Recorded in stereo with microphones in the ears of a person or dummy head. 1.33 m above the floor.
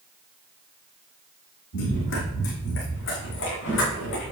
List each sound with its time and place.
1.7 s running footsteps: 70° left (ahead or behind), 4 m